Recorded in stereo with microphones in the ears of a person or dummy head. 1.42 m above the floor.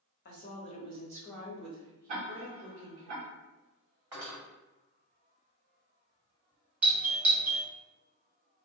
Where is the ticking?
45° right (ahead or behind), 1.2 m.